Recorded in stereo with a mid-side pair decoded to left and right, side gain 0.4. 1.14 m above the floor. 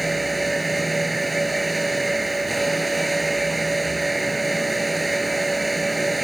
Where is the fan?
15° right.